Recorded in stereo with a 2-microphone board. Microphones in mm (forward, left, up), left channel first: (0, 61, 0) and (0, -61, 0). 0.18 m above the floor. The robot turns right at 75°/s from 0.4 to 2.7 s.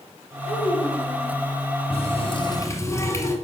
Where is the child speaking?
150° left, 3 m; by 1.4 s 140° right, 3 m.